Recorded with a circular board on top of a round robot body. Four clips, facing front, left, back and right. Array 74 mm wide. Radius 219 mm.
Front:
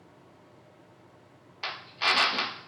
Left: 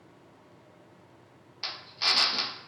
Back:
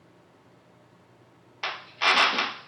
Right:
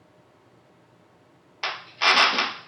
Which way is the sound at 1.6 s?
115° right.